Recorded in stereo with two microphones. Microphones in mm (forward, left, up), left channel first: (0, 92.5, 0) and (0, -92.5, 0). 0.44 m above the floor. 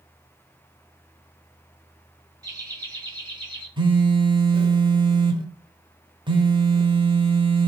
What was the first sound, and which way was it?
Laughter, 20° right (ahead or behind).